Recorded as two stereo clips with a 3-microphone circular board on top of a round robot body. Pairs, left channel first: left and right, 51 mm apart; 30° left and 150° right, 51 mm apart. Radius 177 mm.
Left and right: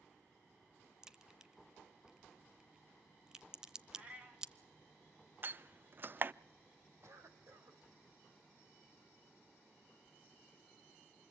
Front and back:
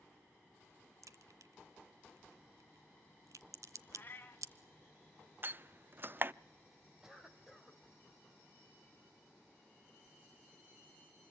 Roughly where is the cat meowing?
Ahead right.